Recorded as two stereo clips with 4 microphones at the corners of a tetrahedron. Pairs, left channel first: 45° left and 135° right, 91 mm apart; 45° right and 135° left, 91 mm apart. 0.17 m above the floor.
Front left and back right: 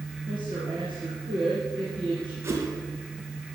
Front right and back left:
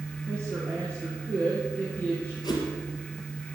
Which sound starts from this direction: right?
A whoosh, at 2.4 s.